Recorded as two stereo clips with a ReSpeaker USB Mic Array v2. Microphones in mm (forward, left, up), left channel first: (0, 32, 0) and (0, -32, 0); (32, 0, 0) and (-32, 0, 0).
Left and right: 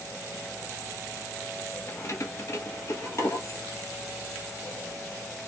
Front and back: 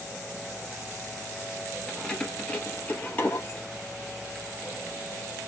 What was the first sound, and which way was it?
Keys jangling, 80° left.